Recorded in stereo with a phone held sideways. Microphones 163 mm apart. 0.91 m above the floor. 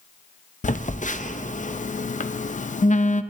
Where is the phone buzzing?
50° left (ahead or behind), 0.5 m.